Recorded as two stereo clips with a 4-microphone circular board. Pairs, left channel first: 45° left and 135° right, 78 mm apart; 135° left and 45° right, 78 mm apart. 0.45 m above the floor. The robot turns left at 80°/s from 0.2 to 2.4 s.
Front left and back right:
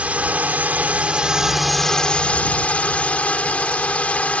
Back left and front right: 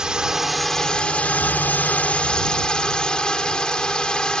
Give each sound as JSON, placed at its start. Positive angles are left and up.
{"t": 0.0, "sound": "a drone", "azimuth_deg": -105}